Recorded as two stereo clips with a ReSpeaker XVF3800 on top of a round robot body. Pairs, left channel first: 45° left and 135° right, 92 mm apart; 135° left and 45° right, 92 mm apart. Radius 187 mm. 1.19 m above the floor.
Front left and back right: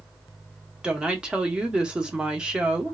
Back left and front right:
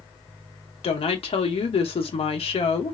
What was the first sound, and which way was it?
A woman speaking, 145° left.